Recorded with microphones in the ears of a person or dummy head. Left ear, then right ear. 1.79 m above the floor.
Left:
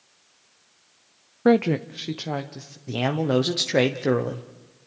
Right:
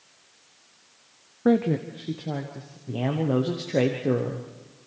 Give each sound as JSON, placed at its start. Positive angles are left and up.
{"t": 1.4, "sound": "a woman speaking", "side_deg": 35, "distance_m": 0.6}
{"t": 2.9, "sound": "a man speaking", "side_deg": 55, "distance_m": 1.2}